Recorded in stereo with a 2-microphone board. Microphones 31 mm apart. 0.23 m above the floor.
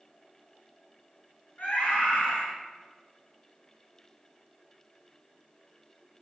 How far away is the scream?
About 3.5 m.